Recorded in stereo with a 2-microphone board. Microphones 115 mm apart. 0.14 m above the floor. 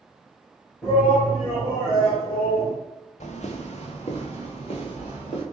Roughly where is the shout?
Centre.